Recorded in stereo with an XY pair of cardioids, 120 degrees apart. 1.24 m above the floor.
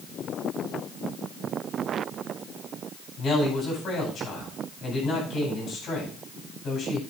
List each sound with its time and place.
3.2 s a man speaking: 55° left, 9 m